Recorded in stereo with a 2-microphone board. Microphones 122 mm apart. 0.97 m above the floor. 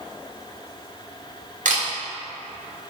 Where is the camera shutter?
80° right, 2.0 m.